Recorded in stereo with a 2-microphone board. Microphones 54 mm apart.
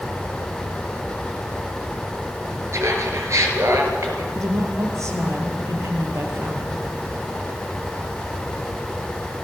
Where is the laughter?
60° right (ahead or behind), 5 m; by 4.2 s 70° right (ahead or behind), 5 m.